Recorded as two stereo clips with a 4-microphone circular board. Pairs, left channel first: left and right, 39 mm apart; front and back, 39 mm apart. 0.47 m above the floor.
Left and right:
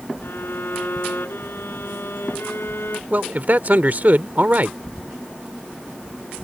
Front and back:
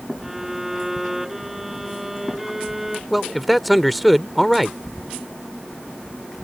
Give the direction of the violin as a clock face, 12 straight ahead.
9 o'clock.